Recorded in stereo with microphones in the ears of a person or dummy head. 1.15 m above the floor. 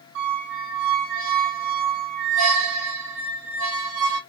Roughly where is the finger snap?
No finger snap in this recording.